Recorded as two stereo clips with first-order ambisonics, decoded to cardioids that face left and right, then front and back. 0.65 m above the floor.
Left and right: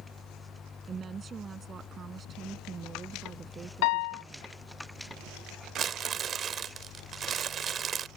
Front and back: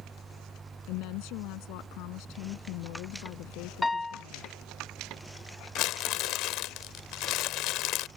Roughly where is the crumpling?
Ahead right.